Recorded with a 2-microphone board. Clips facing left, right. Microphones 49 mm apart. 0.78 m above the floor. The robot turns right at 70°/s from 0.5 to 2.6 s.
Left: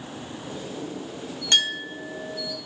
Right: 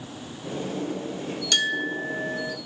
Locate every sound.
1.5 s a clink: 145° left, 3 m; by 2.6 s 140° right, 3 m